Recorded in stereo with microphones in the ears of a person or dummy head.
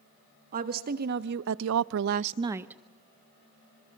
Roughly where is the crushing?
I don't hear crushing.